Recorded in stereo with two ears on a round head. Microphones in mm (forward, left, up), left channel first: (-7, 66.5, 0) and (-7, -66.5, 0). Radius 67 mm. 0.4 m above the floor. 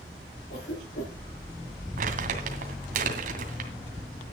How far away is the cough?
About 5.5 m.